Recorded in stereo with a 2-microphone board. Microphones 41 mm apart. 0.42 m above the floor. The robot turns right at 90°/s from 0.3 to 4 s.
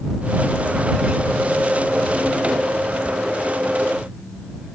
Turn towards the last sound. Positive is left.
No sound to turn to.